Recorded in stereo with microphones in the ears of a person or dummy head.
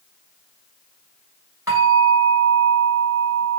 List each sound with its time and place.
1.7 s a bell: 15° right (ahead or behind), 2 m